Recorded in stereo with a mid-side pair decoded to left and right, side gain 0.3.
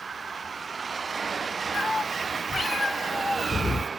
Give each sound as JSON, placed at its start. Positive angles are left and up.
{"t": 1.7, "sound": "a cat meowing", "azimuth_deg": 50, "distance_m": 2.5}